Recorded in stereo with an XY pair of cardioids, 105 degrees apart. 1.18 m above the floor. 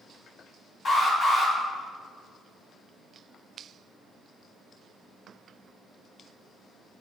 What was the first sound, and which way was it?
An alarm, 60° left.